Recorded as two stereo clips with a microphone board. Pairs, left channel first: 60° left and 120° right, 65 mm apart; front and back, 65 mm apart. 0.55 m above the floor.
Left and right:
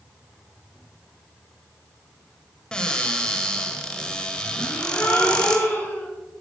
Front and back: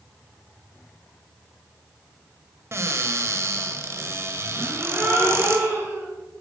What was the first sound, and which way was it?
A cupboard door, 135° left.